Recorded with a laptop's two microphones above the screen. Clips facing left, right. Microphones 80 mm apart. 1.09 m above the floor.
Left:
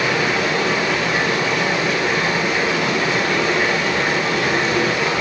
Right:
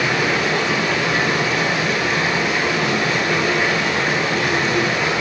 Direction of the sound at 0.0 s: 50° right (ahead or behind).